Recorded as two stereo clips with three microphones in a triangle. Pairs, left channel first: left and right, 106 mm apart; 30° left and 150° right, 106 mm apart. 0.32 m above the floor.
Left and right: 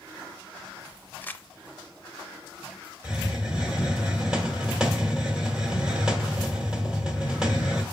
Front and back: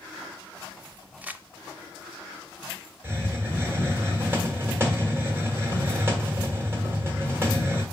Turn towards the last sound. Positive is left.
turn(degrees=-160)